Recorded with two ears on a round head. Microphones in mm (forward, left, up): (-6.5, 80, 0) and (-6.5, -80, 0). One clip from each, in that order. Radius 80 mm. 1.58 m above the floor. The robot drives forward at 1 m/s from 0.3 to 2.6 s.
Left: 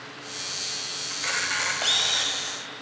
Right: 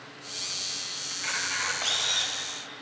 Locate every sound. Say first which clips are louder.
1.1 s a camera shutter: left 4 dB; 20° left (ahead or behind), 1.4 m; by 2.3 s 15° left (ahead or behind), 1.8 m